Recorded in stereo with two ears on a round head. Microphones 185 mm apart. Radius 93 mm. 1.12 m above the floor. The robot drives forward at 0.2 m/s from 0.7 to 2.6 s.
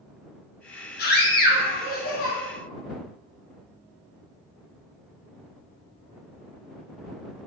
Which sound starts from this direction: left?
A scream, at 1.0 s.